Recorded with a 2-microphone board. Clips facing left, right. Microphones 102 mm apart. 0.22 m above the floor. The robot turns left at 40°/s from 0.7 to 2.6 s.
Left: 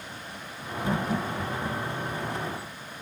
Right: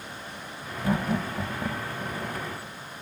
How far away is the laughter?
About 1.0 m.